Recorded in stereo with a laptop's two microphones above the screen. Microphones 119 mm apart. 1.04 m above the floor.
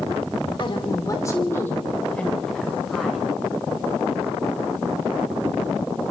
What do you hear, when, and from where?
0.6 s a woman speaking: 45° left (ahead or behind), 2.5 m; by 3.3 s 5° right (ahead or behind), 5 m